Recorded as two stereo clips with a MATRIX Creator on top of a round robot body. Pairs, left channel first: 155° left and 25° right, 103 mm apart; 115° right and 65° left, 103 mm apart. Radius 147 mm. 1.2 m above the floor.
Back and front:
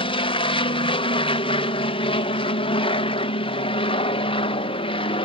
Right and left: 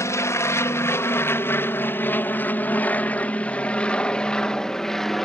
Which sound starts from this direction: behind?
An aircraft, at 0.0 s.